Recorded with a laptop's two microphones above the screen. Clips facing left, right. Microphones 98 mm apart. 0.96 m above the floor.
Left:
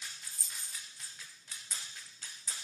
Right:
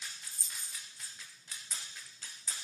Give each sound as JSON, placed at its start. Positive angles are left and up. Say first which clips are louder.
{"t": 0.3, "sound": "a dropped coin", "louder": "even", "side_deg": 60, "distance_m": 1.3}